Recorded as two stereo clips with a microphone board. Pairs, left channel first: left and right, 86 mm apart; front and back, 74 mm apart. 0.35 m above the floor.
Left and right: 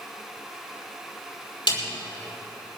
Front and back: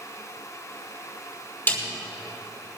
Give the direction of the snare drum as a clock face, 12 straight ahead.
10 o'clock.